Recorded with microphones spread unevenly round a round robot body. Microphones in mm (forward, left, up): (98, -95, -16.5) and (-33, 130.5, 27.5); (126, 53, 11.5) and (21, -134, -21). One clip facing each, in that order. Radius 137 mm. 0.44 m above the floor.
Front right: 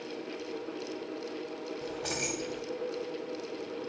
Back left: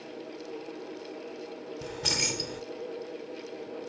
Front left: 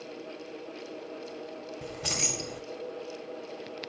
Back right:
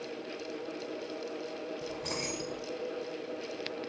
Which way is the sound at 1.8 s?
75° left.